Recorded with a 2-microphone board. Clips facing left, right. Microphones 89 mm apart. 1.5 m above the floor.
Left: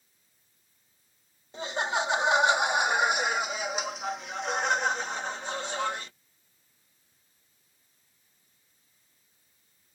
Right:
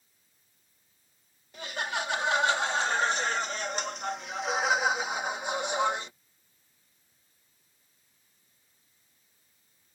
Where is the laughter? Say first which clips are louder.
Left 4 dB; 25° left (ahead or behind); by 6.1 s 20° right (ahead or behind).